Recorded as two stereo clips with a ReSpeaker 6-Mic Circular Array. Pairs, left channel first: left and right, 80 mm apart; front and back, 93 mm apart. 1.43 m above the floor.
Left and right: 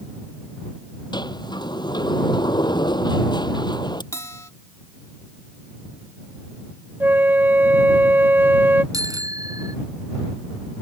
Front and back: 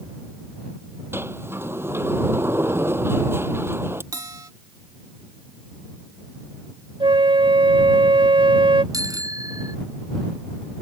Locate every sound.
1.1 s a sliding door: 115° left
4.1 s a bell: 135° left
7.0 s a flute: 155° right
8.9 s a bicycle bell: 130° right